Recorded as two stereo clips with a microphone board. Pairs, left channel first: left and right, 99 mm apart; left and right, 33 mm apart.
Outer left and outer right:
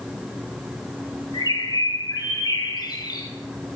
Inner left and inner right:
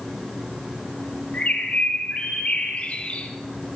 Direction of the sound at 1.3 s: 45° left (ahead or behind).